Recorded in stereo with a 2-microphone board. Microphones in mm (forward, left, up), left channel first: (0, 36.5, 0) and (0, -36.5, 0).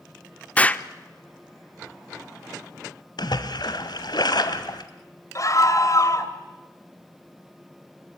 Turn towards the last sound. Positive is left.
turn(degrees=50)  # may be behind; listen again after turning